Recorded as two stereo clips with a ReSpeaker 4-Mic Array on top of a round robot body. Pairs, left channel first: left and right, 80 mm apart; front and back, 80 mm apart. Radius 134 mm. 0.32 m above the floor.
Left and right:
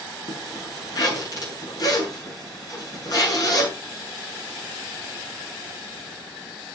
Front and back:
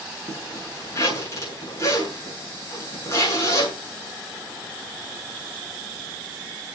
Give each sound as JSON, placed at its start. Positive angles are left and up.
{"t": 0.3, "sound": "a zipper", "azimuth_deg": 45, "distance_m": 6.5}